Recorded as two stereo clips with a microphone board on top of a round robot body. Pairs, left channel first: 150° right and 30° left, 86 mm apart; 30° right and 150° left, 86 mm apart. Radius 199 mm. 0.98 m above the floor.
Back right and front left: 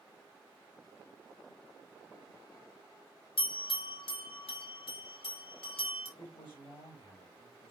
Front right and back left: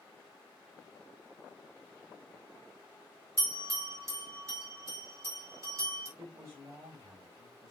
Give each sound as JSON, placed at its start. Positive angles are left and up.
{"t": 3.4, "sound": "a bell", "azimuth_deg": -155, "distance_m": 4.5}
{"t": 6.2, "sound": "a man speaking", "azimuth_deg": -155, "distance_m": 6.0}